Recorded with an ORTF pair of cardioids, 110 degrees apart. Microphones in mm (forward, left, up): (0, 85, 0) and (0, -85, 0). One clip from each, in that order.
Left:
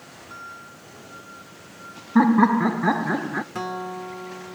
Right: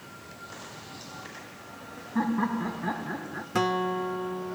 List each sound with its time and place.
2.1 s laughter: 55° left, 0.7 m
3.5 s a guitar: 30° right, 0.9 m